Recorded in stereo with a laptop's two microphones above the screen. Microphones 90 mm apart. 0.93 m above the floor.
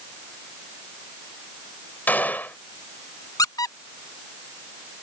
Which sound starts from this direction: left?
A squeak, at 3.4 s.